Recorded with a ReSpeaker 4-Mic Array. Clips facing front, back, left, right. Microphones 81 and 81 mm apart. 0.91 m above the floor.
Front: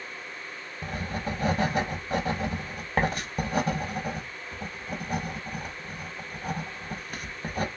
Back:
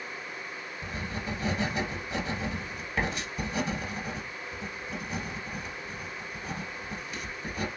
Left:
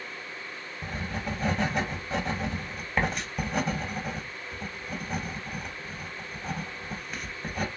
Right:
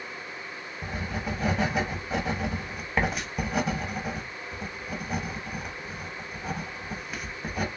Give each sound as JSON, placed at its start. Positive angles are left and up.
{"t": 0.8, "sound": "writing", "azimuth_deg": -5, "distance_m": 0.9}